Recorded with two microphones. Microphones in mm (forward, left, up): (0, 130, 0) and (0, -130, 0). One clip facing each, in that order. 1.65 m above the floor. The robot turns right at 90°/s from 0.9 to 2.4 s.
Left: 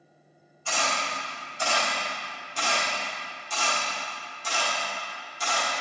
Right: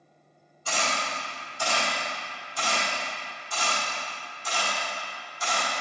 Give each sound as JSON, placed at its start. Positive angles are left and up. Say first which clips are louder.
{"t": 0.7, "sound": "a camera shutter", "louder": "even", "side_deg": -45, "distance_m": 1.5}